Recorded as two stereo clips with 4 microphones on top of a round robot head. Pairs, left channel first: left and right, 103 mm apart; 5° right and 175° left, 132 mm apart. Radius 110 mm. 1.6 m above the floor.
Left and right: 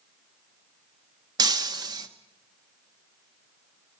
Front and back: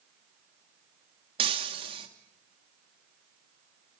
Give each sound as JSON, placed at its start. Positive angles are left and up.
{"t": 1.4, "sound": "breaking glass", "azimuth_deg": -130, "distance_m": 0.9}